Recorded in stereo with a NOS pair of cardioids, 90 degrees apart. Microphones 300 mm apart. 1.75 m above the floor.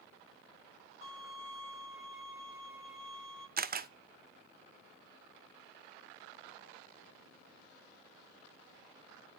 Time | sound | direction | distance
1.0 | a violin | 40° left | 7.5 m
3.6 | a camera shutter | 30° right | 0.6 m